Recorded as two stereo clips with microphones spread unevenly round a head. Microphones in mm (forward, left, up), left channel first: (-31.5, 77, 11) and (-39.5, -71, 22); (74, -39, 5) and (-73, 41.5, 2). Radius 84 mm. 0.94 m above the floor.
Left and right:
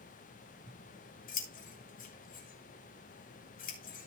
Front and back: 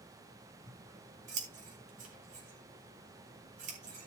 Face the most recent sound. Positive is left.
turn(degrees=105)